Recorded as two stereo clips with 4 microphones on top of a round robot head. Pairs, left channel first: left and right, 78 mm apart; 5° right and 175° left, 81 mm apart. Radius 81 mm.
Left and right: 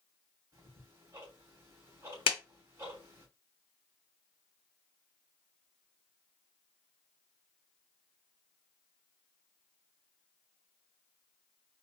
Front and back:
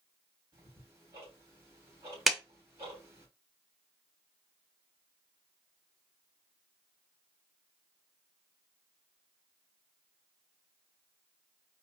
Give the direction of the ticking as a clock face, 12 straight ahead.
4 o'clock.